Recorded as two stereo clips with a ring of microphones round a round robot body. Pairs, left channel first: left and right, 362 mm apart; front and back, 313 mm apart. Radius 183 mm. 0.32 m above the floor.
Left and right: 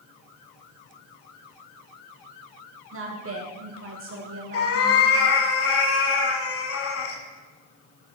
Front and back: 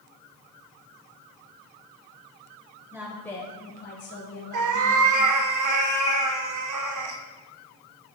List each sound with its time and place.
2.9 s a woman speaking: 105° right, 1.0 m; by 5.2 s 30° right, 1.7 m
4.5 s a cat meowing: 145° left, 0.8 m